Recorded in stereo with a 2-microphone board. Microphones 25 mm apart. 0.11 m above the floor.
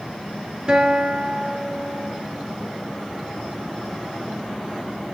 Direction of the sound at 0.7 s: 30° right (ahead or behind).